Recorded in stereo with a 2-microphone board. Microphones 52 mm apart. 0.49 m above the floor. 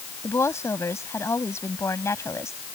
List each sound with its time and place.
0.2 s a woman speaking: 70° left (ahead or behind)